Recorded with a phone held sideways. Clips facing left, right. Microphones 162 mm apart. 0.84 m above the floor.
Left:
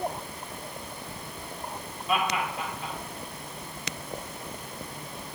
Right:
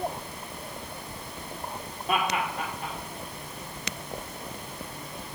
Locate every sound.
2.1 s laughter: 55° right (ahead or behind), 2.5 m